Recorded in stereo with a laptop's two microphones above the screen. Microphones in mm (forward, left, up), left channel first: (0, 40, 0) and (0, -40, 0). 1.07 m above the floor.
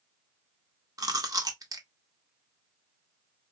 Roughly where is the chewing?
Right.